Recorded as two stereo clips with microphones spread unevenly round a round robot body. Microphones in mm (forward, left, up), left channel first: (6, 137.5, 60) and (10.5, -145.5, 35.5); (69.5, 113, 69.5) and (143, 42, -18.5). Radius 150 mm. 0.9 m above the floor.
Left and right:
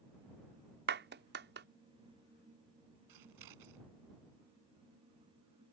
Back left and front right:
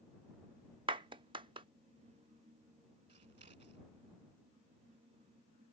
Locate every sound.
0.9 s a clap: 35° right
3.1 s scissors: 85° right